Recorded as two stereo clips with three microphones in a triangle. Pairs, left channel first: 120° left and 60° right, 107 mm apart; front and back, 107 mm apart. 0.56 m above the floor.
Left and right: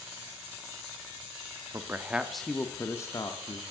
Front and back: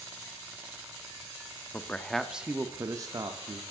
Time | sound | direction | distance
1.7 | a man speaking | 45° right | 0.6 m